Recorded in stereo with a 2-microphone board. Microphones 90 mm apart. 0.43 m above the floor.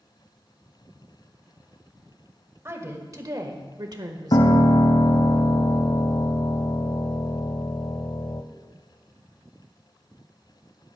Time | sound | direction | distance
2.6 | a woman speaking | 30° right (ahead or behind) | 1.5 m
4.3 | a piano | 65° left (ahead or behind) | 0.7 m